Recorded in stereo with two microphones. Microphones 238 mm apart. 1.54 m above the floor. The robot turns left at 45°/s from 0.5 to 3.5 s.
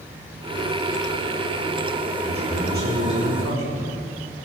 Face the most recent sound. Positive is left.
turn(degrees=-80)